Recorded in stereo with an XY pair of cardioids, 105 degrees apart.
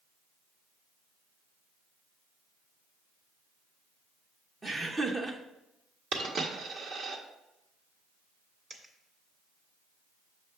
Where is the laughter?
25° right, 0.8 m.